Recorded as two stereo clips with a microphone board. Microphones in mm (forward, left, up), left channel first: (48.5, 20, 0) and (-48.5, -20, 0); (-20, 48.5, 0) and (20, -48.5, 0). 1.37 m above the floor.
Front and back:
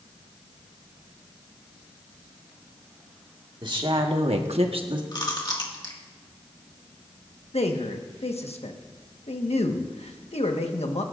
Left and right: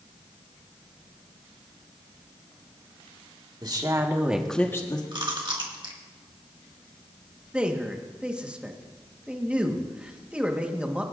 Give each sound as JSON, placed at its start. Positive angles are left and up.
{"t": 3.6, "sound": "a woman speaking", "azimuth_deg": -115, "distance_m": 1.9}
{"t": 5.1, "sound": "chewing", "azimuth_deg": -25, "distance_m": 1.9}
{"t": 7.5, "sound": "a man speaking", "azimuth_deg": 10, "distance_m": 1.3}